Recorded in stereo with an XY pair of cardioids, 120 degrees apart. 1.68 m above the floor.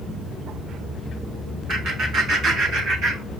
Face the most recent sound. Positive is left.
turn(degrees=-70)